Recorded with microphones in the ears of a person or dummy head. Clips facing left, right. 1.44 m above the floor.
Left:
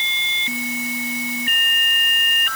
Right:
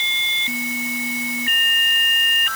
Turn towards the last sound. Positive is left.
No sound to turn to.